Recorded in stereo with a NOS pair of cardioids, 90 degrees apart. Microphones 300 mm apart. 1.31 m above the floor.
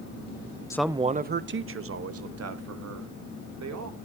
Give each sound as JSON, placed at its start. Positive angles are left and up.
{"t": 0.7, "sound": "a man speaking", "azimuth_deg": 10, "distance_m": 0.5}